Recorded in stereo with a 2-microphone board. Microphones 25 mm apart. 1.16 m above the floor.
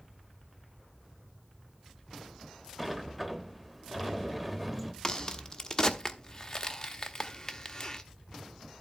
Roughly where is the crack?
Left.